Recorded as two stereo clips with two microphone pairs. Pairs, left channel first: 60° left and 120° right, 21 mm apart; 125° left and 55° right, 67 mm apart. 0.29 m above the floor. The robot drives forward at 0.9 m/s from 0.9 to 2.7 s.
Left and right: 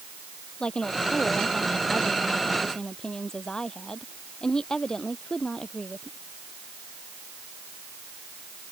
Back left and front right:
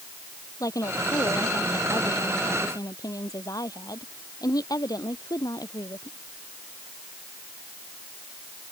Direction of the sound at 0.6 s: 105° left.